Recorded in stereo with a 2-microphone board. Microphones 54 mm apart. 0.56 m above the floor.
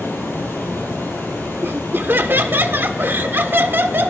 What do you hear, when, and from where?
0.0 s running water: 55° left (ahead or behind), 4 m
1.6 s laughter: 45° right (ahead or behind), 1.2 m